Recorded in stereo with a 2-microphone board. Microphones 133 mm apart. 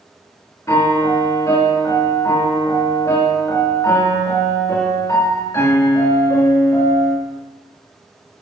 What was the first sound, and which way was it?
A piano, 25° left (ahead or behind).